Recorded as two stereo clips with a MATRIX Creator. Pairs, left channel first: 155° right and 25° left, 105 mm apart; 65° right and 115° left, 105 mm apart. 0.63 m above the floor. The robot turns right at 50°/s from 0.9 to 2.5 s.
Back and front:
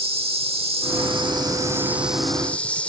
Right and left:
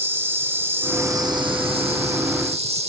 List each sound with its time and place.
0.0 s an insect: 45° left; by 2.9 s 125° left